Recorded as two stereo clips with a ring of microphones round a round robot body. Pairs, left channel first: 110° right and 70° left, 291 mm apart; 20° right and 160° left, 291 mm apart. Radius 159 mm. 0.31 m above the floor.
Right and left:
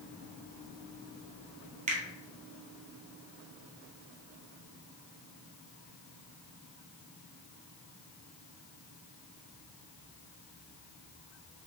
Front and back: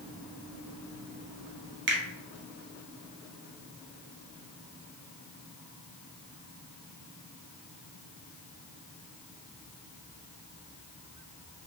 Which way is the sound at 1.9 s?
125° left.